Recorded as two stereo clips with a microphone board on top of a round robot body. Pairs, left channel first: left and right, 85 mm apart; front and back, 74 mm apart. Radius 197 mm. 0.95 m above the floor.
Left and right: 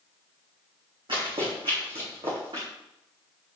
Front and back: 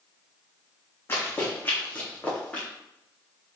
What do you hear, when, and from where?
1.1 s running footsteps: 60° right, 3.5 m; by 2.7 s 70° right, 4 m